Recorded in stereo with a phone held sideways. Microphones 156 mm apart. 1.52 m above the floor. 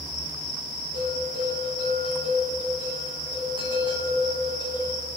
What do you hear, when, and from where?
0.9 s a bell: 30° right (ahead or behind), 2.5 m